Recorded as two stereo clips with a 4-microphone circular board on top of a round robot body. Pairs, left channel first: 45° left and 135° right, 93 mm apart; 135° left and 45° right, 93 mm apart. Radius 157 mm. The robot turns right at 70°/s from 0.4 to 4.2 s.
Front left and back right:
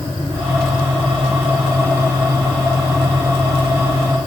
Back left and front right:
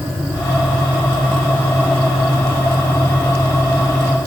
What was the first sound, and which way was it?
Only background noise.